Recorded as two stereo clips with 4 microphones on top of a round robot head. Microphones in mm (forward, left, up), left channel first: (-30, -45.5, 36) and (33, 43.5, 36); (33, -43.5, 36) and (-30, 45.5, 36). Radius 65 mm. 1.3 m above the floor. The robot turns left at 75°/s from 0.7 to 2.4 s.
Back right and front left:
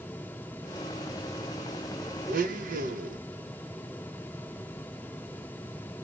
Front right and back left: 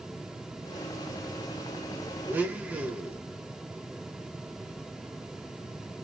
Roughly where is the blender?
Ahead left.